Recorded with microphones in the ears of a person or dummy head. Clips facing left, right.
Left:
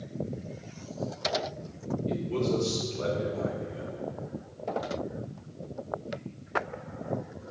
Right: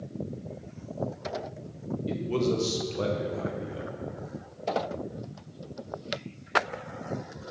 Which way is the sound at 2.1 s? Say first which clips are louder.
Right 2 dB; 55° right (ahead or behind).